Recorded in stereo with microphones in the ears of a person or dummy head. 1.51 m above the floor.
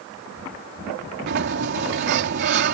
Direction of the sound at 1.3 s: 60° right (ahead or behind).